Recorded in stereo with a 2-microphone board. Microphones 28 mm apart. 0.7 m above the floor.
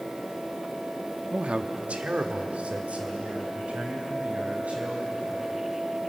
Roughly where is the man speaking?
Right.